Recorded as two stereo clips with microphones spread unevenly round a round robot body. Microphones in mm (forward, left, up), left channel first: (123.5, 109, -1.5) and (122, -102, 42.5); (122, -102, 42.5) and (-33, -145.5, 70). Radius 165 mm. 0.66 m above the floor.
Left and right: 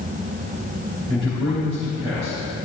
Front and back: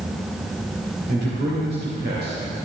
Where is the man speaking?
150° right, 2.5 m.